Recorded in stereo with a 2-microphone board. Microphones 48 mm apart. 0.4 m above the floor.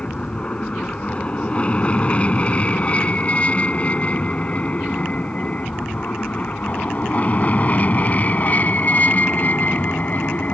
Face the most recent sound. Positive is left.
turn(degrees=35)  # may be behind; listen again after turning